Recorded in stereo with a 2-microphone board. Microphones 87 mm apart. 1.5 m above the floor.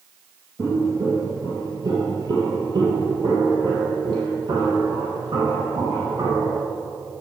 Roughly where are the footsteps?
Right.